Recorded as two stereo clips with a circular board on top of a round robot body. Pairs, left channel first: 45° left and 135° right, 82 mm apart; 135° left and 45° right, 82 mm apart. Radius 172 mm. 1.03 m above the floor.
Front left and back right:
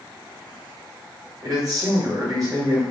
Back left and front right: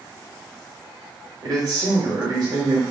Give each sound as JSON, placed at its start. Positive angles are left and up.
{"t": 1.4, "sound": "a man speaking", "azimuth_deg": -85, "distance_m": 1.2}